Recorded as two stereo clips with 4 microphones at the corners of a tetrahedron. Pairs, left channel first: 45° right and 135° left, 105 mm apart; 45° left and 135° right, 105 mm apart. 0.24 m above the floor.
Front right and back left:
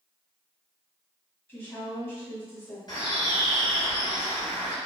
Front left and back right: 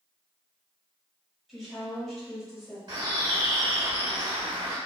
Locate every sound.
1.5 s a woman speaking: 50° right, 0.9 m
2.9 s a bird: 95° right, 1.4 m